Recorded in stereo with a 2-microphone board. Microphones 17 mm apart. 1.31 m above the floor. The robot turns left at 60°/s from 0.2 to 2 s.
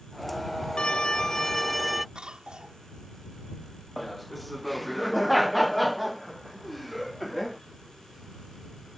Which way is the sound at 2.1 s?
55° right (ahead or behind).